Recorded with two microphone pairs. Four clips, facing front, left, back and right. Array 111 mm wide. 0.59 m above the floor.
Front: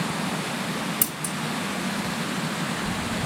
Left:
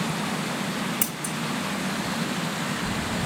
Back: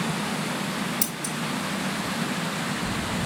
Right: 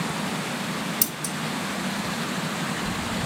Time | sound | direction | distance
1.0 | scissors | 70° left | 0.8 m